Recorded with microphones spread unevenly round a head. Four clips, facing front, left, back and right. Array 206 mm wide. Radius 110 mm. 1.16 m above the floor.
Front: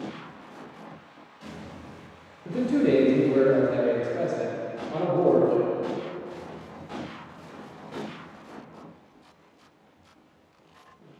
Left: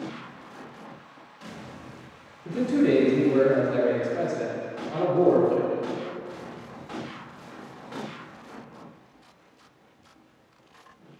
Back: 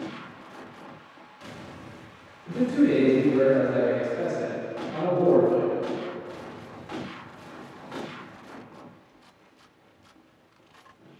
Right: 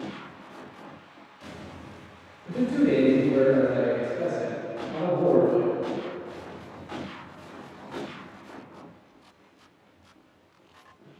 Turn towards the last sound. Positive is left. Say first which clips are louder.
# left 1 dB, back 1 dB
turn(degrees=40)